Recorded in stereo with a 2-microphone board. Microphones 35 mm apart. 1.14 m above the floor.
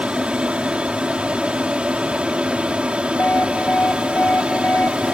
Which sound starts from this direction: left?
An alarm, at 3.2 s.